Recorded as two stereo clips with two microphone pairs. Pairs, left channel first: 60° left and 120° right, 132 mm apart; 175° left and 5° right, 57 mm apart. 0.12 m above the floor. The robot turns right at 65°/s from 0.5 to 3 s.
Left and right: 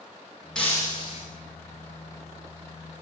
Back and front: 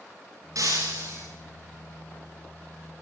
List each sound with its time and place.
0.6 s breaking glass: 25° right, 10 m; by 1.2 s 25° left, 10 m